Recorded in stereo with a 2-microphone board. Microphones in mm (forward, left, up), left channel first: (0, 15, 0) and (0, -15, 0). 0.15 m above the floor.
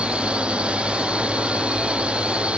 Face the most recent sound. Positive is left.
turn(degrees=-45)  # may be behind; listen again after turning